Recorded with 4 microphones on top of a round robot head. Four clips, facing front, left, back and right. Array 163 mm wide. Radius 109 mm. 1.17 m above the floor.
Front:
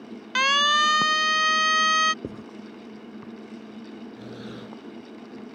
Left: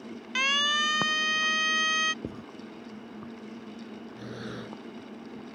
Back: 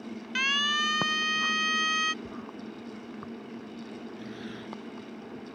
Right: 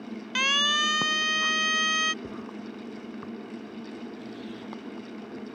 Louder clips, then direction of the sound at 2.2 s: Right 1 dB, front 4 dB; 20° left.